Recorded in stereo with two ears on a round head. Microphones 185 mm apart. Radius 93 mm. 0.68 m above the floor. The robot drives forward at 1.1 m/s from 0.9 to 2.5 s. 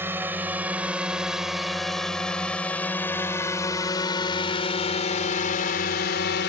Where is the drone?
10° right (ahead or behind); by 6.5 s 55° left (ahead or behind).